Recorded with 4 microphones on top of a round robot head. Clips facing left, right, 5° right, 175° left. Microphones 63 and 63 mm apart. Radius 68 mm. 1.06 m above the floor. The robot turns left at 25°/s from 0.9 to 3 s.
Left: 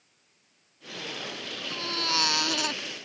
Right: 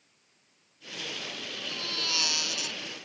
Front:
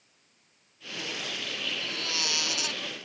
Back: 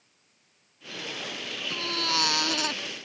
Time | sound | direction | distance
1.7 | a baby crying | 150° left | ?